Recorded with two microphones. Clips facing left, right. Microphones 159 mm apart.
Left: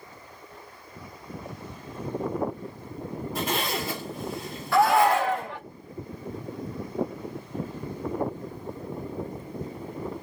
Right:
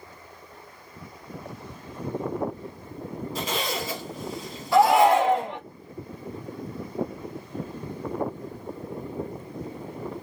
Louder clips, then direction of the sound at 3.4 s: Left 1 dB; 55° left (ahead or behind).